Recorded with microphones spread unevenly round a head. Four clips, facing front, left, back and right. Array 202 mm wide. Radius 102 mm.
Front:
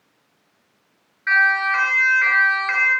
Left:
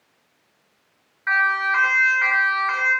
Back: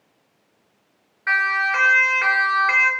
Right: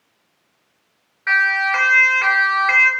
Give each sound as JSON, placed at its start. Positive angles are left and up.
{"t": 1.3, "sound": "a siren", "azimuth_deg": -130, "distance_m": 6.5}